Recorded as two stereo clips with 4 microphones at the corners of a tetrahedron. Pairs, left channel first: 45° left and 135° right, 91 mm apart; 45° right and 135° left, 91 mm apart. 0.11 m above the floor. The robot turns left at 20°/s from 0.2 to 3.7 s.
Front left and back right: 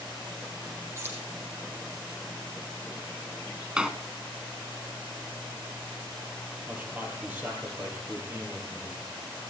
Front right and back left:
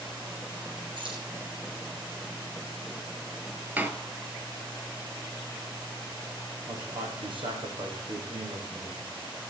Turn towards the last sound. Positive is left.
turn(degrees=155)